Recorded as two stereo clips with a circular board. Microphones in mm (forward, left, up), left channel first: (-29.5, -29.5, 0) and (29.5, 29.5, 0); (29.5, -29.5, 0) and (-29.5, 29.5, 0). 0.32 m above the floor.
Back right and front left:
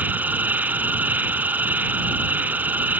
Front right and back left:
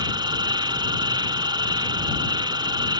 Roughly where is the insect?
Behind left.